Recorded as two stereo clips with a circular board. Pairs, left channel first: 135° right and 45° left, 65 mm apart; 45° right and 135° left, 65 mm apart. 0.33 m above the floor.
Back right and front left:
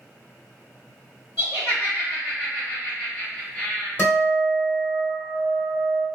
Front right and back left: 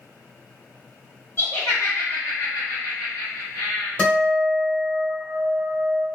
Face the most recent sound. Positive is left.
turn(degrees=-105)